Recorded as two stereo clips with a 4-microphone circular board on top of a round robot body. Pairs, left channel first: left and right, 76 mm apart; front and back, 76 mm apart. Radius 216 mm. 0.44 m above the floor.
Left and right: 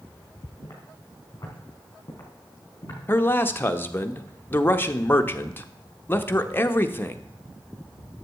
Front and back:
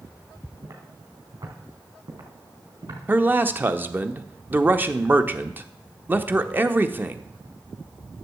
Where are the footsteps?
145° left, 3 m; by 3.0 s 150° left, 4.5 m.